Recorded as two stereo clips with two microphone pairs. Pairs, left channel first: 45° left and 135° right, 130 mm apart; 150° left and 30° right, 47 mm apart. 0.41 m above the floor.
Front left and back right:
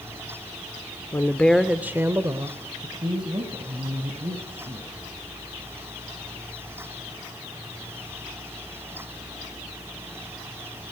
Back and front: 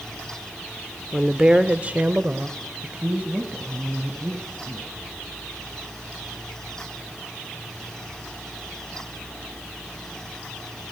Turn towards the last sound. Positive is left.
turn(degrees=-85)